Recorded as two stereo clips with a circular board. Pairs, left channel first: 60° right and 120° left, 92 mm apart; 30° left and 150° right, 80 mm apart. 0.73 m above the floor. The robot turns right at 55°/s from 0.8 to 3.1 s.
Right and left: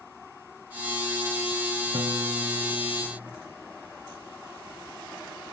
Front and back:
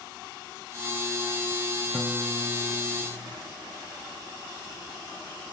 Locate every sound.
1.9 s a piano: 115° left; by 3.4 s straight behind